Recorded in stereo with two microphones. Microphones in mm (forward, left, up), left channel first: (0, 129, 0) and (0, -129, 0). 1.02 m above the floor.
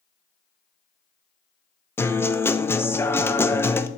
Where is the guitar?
10° left (ahead or behind), 0.5 m.